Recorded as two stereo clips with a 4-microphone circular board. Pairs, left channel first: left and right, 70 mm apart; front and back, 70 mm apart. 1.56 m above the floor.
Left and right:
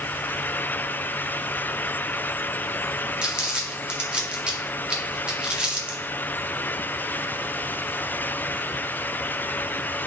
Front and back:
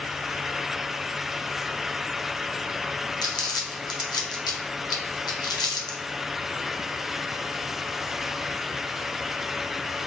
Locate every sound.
3.2 s crumpling: 15° right, 0.8 m